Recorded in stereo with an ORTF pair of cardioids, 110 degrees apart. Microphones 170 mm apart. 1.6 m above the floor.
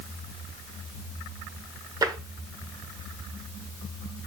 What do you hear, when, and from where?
2.0 s tapping: 25° right, 1.6 m